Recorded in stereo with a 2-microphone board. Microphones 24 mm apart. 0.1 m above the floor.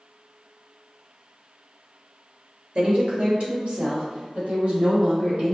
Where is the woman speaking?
45° right (ahead or behind), 1.7 m; by 5.5 s 55° right (ahead or behind), 3 m.